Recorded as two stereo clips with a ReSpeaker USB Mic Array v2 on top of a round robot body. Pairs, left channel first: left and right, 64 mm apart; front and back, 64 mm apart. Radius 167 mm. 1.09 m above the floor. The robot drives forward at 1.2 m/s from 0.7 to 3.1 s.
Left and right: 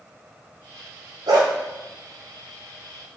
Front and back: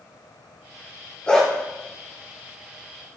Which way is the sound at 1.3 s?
70° right.